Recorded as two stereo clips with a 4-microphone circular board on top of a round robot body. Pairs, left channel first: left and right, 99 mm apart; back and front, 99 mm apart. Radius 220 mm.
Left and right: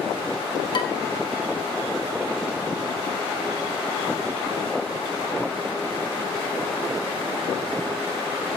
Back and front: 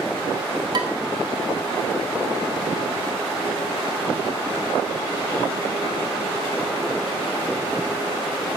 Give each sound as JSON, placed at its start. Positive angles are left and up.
{"t": 0.7, "sound": "dishes clattering", "azimuth_deg": 45, "distance_m": 1.2}